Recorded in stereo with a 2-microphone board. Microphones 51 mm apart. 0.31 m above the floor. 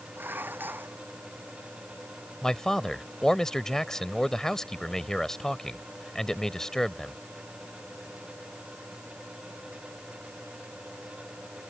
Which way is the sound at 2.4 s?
10° left (ahead or behind).